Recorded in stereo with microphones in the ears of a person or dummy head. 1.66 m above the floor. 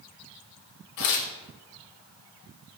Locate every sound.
1.0 s tearing paper: 50° left (ahead or behind), 0.5 m